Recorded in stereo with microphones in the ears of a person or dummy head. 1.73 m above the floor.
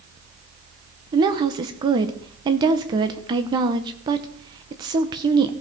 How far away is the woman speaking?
About 0.9 m.